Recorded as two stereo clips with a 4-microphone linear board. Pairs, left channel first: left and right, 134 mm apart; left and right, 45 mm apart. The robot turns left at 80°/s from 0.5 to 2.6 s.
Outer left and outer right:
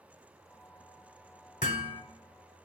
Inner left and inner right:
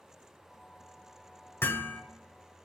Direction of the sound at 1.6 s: 75° left.